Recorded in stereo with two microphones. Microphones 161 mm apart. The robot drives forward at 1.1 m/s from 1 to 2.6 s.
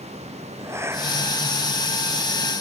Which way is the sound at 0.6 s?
15° right (ahead or behind).